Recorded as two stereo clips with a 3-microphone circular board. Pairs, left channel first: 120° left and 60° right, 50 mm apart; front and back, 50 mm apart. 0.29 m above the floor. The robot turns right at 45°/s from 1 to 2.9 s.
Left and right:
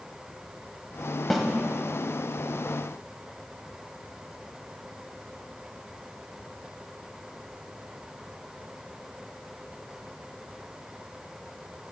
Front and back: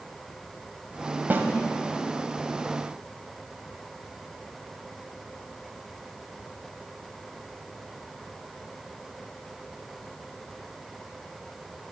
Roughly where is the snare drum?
Behind right.